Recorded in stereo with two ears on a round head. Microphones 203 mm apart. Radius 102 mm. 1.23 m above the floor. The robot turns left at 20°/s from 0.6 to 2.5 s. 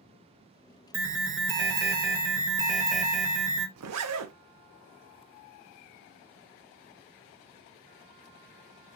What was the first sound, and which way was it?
An alarm, 115° right.